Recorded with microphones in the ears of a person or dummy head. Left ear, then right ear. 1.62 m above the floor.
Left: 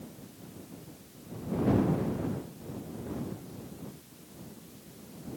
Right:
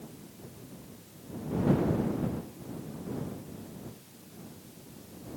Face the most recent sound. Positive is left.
No sound to turn to.